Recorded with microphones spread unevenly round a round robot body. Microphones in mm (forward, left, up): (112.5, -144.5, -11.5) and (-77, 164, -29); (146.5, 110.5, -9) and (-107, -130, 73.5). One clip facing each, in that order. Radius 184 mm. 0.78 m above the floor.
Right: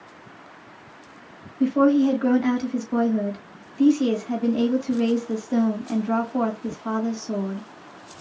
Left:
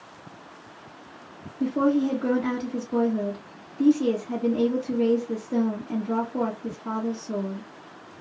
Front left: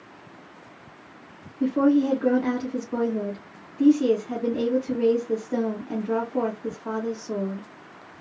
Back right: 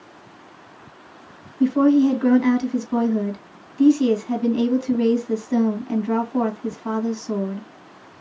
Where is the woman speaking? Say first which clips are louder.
Right 4 dB, back right 4 dB; 105° right, 1.2 m.